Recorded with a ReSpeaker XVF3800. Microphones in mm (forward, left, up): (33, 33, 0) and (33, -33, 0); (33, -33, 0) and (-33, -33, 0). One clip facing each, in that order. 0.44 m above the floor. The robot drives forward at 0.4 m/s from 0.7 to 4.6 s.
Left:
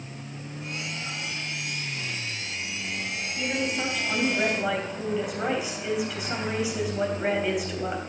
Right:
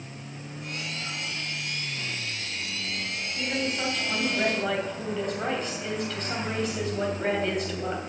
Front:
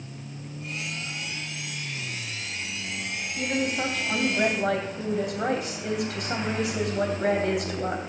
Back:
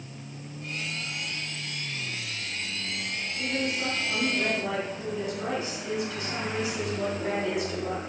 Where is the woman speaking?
10° left, 3 m.